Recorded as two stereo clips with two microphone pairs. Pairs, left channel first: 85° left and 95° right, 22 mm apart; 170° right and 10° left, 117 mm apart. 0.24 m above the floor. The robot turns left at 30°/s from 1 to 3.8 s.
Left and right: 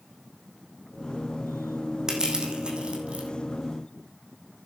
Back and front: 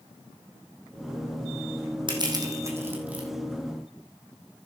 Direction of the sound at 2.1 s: 35° right.